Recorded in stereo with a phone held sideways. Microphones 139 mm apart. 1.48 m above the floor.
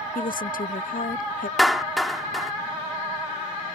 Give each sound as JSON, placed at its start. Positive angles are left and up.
{"t": 0.1, "sound": "a woman speaking", "side_deg": 75}
{"t": 1.6, "sound": "a clap", "side_deg": 0}